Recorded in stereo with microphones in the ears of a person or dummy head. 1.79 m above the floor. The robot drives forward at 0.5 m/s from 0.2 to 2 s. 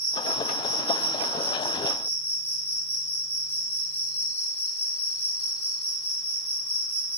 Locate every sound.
0.0 s an insect: 30° right (ahead or behind), 1.6 m; by 7.2 s 20° right (ahead or behind), 2 m